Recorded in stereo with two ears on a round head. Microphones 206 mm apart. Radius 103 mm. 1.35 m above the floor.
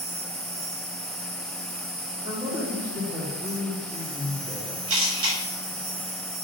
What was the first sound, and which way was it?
An insect, 45° right (ahead or behind).